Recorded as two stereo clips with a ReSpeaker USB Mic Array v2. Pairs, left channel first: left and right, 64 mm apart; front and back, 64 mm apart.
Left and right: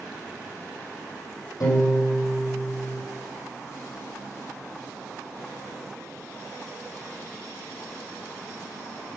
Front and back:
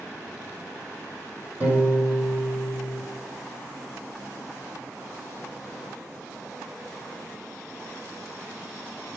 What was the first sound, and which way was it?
A piano, 115° left.